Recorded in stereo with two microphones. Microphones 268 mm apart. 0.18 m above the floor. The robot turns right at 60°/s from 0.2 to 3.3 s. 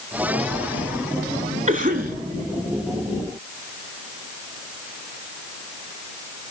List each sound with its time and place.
1.7 s a cough: 30° right (ahead or behind), 1.1 m; by 2.1 s 35° right (ahead or behind), 1.1 m